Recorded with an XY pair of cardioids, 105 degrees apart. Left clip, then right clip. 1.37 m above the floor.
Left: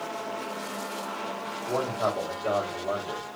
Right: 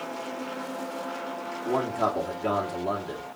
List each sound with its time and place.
1.6 s a man speaking: 65° right, 3 m